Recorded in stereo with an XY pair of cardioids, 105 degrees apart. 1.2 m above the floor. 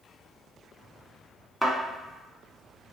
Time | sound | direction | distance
1.6 | a thud | straight ahead | 1.4 m